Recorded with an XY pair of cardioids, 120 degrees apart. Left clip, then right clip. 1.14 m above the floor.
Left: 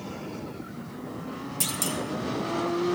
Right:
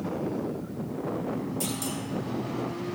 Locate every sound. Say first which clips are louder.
1.6 s a clunk: left 3 dB; 50° left, 1.0 m